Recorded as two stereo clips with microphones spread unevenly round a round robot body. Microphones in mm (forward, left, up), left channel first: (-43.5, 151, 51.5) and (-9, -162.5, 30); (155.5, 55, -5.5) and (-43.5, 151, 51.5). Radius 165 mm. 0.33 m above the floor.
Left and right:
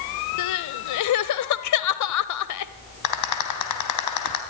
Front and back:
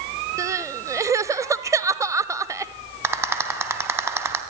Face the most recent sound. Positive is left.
turn(degrees=70)